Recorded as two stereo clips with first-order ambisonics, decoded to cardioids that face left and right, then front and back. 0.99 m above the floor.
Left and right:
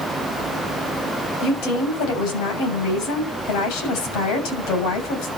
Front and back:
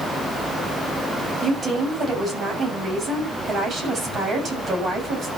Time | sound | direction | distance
1.4 | a woman speaking | 110° left | 7 m